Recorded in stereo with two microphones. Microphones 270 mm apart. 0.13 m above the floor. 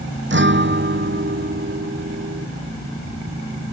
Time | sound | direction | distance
0.3 | a guitar | 45° right (ahead or behind) | ?